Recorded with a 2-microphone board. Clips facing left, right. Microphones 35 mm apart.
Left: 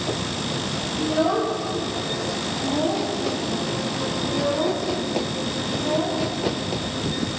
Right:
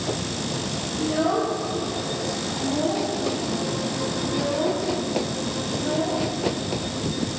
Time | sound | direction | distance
1.0 | a child speaking | 20° left (ahead or behind) | 7.5 m